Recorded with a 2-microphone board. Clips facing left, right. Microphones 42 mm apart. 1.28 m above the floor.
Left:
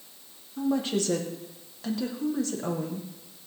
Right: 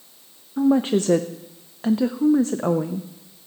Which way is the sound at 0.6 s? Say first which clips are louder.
Right 8 dB; 35° right (ahead or behind).